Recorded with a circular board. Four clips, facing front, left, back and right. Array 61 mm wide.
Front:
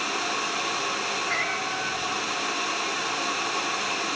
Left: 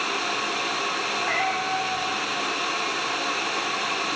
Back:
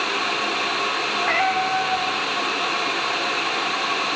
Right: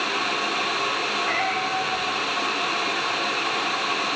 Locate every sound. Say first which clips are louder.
1.2 s a cat meowing: left 1 dB, back 11 dB; straight behind, 9 m